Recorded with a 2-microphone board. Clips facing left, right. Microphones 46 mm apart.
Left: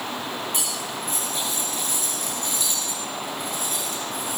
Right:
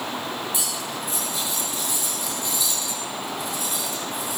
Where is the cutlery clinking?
55° left (ahead or behind), 6.5 m.